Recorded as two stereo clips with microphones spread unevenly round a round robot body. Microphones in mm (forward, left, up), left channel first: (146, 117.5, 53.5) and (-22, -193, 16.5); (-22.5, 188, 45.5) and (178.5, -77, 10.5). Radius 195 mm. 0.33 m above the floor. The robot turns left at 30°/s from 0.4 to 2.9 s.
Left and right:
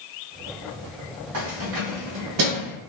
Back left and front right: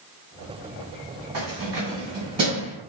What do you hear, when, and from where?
1.3 s keys jangling: 90° right, 1.7 m; by 2.8 s 135° right, 1.7 m